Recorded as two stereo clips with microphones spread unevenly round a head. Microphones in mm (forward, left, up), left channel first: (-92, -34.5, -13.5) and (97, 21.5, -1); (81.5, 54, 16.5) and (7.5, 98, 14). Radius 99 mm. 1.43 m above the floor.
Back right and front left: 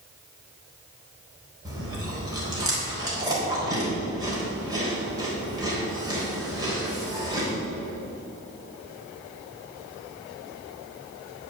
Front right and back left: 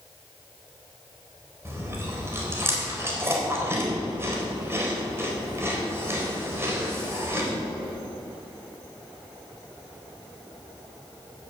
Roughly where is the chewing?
Left.